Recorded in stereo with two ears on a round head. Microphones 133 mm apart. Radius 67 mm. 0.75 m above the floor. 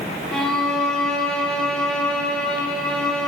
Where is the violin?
5° left (ahead or behind), 1.7 m.